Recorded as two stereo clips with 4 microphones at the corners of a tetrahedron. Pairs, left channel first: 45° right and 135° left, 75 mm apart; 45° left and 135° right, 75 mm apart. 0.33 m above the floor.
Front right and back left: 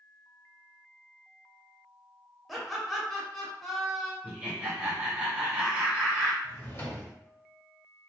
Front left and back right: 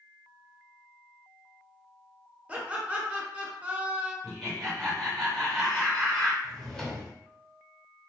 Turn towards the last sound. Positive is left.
turn(degrees=-30)